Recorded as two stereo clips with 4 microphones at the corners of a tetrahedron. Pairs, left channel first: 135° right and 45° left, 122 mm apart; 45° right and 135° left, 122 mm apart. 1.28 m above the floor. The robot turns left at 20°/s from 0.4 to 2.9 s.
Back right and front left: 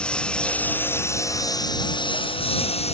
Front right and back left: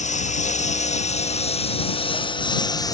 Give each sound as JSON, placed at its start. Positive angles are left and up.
{"t": 0.0, "sound": "a lawn mower", "azimuth_deg": -55}